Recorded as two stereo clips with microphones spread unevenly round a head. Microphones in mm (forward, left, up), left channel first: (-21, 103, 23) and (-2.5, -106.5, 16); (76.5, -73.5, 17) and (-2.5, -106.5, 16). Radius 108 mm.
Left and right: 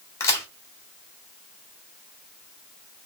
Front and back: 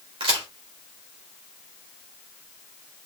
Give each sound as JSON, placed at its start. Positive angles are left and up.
{"t": 0.2, "sound": "a crack", "azimuth_deg": 170, "distance_m": 2.0}